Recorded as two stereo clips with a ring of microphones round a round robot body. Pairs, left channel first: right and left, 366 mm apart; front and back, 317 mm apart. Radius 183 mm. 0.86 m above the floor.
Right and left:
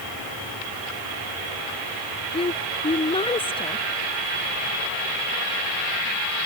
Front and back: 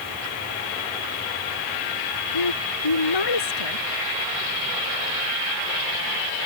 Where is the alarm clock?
I don't hear an alarm clock.